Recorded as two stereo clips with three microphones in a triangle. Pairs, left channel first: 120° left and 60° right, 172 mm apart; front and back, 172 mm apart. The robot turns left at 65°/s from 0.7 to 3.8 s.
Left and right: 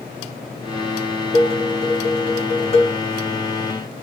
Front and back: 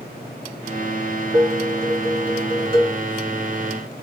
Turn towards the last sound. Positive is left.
turn(degrees=100)